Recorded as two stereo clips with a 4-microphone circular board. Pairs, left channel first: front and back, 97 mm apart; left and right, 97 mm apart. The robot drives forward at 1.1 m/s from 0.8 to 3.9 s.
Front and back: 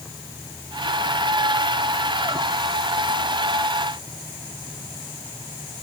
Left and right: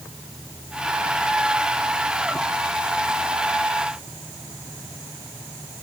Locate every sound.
Only background noise.